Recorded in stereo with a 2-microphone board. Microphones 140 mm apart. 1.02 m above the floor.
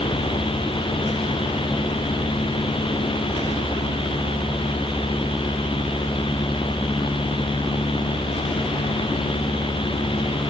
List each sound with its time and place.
Only background noise.